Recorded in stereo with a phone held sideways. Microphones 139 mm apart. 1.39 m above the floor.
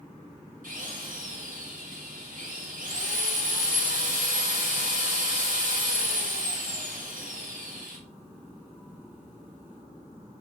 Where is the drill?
80° right, 5 m.